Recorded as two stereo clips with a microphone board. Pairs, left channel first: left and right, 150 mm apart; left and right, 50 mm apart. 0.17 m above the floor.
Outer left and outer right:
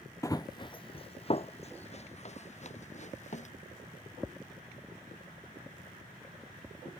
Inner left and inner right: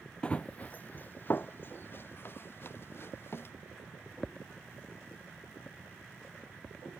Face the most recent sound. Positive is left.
turn(degrees=50)  # may be behind; listen again after turning